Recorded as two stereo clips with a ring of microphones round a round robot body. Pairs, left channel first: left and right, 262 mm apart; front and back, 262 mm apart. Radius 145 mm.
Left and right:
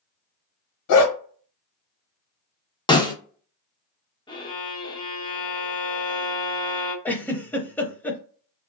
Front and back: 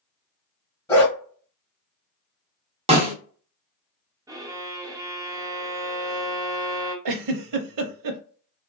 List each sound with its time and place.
0.9 s a dog barking: 80° left, 1.1 m
2.9 s a snare drum: 140° left, 1.0 m
4.3 s a violin: 125° left, 0.7 m
7.0 s a giggle: 175° left, 0.6 m